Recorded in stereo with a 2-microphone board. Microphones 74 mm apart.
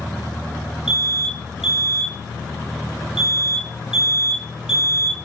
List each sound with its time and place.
0.9 s an alarm: 10° right (ahead or behind), 2.5 m